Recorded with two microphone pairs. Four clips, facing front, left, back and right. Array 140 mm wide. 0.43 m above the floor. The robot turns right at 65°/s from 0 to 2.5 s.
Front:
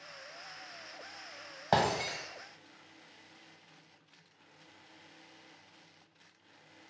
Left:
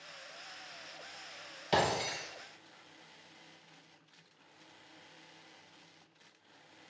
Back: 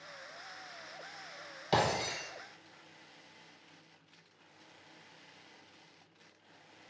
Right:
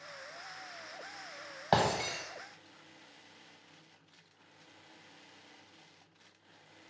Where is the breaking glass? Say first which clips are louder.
Right 2 dB, front 2 dB; 50° right, 0.9 m; by 2.2 s 20° right, 0.9 m.